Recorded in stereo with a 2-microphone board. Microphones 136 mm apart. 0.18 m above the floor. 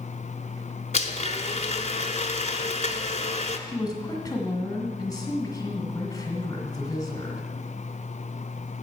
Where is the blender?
65° left (ahead or behind), 0.7 m.